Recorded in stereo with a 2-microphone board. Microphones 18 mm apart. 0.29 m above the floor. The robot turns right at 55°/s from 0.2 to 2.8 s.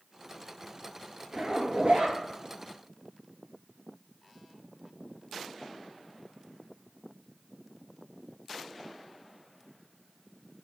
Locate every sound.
1.3 s a zipper: 115° right, 1.8 m; by 2.2 s 70° right, 1.8 m